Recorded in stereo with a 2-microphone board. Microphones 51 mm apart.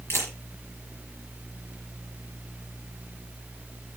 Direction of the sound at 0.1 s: 55° left (ahead or behind).